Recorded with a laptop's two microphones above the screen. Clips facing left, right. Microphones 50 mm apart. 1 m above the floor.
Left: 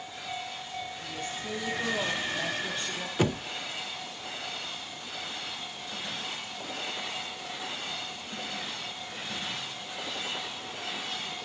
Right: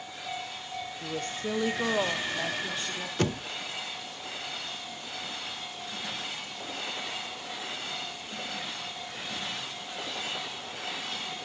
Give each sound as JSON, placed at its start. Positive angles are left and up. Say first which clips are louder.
{"t": 1.0, "sound": "a woman speaking", "louder": "right 3 dB", "side_deg": -55, "distance_m": 1.3}
{"t": 3.2, "sound": "knocking", "louder": "left 2 dB", "side_deg": 10, "distance_m": 0.8}